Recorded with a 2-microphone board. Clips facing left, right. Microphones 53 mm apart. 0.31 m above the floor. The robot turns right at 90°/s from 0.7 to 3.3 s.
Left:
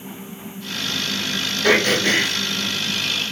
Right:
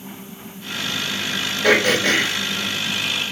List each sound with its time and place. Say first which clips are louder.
1.6 s throat clearing: right 1 dB; 150° right, 1.3 m; by 2.3 s 85° right, 1.3 m